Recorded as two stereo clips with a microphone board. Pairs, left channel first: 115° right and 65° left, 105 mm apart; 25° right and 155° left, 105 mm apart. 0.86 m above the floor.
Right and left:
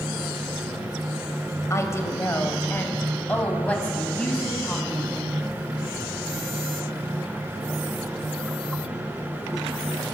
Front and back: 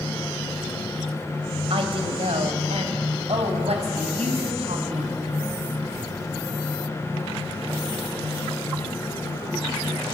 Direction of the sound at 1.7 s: 175° right.